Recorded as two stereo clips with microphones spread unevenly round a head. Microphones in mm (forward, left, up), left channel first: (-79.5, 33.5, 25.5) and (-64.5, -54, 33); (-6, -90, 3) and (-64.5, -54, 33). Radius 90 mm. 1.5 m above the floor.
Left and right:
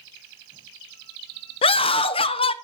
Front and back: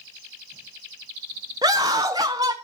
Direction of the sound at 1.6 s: 100° left.